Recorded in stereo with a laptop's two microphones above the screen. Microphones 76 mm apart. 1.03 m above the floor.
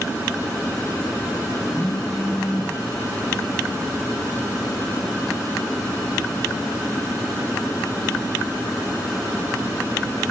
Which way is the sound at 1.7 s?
15° right (ahead or behind).